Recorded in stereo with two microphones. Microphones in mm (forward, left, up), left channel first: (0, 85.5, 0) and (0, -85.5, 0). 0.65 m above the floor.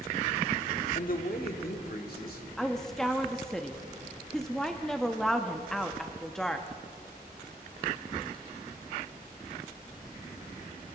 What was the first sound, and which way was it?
A man speaking, 55° left (ahead or behind).